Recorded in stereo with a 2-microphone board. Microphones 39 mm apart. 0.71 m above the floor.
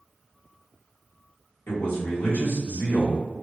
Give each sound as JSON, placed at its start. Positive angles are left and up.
{"t": 1.7, "sound": "a man speaking", "side_deg": 60, "distance_m": 1.5}